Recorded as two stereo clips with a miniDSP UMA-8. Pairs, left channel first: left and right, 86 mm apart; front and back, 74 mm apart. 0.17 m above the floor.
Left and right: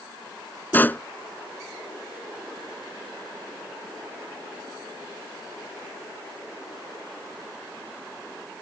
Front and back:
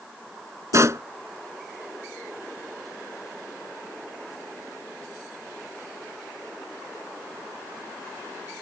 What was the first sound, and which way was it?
A pop, 150° left.